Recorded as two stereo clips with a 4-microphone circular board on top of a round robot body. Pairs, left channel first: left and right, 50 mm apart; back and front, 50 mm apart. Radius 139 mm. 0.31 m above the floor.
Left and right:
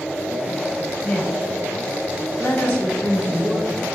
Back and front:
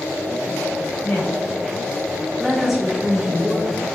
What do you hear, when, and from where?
1.0 s a woman speaking: 165° left, 1.9 m; by 3.9 s 20° left, 2 m